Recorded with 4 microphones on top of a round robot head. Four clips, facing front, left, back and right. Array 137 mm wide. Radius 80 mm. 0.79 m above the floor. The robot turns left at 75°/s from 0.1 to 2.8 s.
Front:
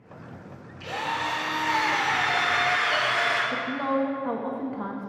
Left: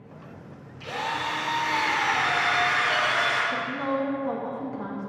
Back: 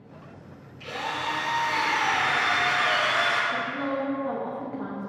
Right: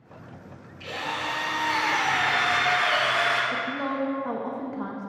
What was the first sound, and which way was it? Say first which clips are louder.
A drill: left 2 dB, front 2 dB; 40° left.